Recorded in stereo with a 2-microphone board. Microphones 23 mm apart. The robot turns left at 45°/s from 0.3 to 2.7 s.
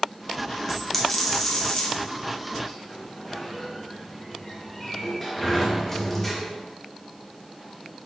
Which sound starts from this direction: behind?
A dropped coin, at 0.7 s.